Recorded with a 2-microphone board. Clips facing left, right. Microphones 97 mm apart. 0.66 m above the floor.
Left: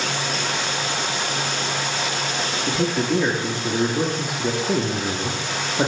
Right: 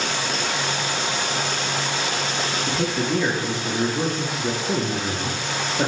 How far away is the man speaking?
About 1.1 m.